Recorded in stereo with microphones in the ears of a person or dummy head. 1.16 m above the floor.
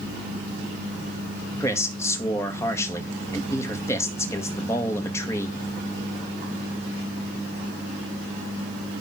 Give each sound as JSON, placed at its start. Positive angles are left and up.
{"t": 1.6, "sound": "a man speaking", "side_deg": 15, "distance_m": 1.5}